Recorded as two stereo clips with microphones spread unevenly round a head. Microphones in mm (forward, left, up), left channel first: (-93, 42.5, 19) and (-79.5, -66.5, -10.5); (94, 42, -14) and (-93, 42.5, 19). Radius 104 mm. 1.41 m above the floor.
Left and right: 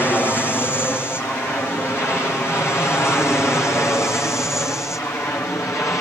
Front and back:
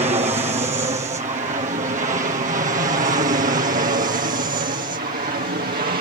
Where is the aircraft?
175° left; by 6.0 s 165° left.